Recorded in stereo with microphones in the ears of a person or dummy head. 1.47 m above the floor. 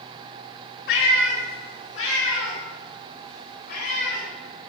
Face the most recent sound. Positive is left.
turn(degrees=55)  # may be behind; listen again after turning